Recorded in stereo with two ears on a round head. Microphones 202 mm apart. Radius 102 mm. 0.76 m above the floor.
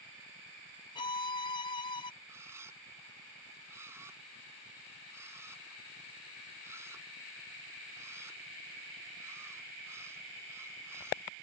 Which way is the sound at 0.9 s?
20° left (ahead or behind).